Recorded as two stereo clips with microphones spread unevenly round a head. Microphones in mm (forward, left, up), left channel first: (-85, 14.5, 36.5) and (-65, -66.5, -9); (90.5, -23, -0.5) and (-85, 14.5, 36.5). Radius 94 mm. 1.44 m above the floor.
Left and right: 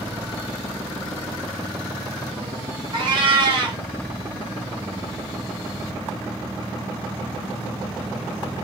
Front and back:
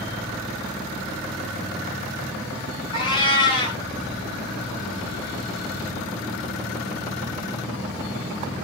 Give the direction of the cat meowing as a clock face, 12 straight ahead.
2 o'clock.